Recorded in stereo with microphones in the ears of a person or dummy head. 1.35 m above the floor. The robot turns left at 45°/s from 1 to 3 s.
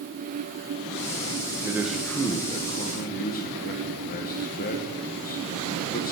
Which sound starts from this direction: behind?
A man speaking, at 1.6 s.